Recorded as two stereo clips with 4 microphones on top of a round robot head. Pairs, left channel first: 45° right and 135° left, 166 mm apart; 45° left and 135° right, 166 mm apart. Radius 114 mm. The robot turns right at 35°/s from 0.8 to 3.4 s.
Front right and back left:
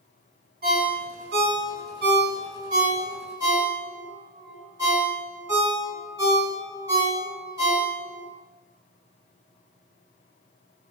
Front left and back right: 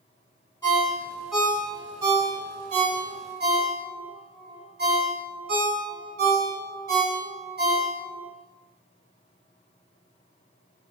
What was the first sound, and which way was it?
A ringtone, 120° left.